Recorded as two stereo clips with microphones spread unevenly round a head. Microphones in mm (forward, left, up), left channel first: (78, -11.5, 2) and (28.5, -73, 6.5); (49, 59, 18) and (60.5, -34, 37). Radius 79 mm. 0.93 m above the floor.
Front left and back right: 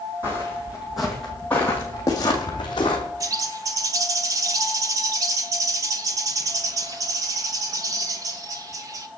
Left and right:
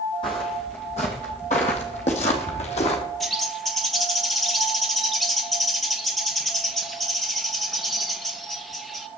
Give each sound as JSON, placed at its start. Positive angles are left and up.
{"t": 0.2, "sound": "footsteps", "azimuth_deg": 160, "distance_m": 2.5}
{"t": 3.2, "sound": "a bird", "azimuth_deg": 180, "distance_m": 0.7}